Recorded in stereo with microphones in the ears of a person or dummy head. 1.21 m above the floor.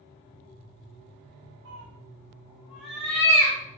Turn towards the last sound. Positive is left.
turn(degrees=25)  # may be behind; listen again after turning